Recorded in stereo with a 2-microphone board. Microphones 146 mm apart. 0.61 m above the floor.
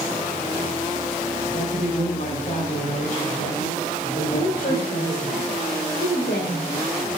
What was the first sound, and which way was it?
A man speaking, 45° left (ahead or behind).